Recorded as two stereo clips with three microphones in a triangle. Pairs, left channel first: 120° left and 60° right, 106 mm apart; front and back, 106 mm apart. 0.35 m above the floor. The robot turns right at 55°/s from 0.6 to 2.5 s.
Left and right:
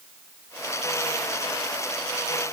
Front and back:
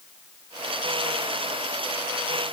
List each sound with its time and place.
Only background noise.